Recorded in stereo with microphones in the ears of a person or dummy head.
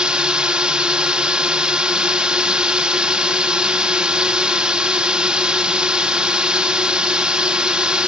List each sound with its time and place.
0.0 s a drone: 5° right (ahead or behind)